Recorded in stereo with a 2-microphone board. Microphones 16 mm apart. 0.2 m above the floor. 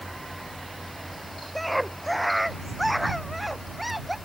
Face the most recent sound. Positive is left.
turn(degrees=-5)  # may be behind; listen again after turning